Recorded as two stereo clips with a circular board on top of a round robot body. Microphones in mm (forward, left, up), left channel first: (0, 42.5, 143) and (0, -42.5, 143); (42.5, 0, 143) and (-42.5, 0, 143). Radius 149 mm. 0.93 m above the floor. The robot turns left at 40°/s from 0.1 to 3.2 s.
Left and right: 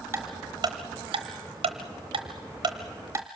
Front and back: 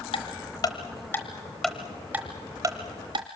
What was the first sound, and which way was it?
Ticking, 25° right.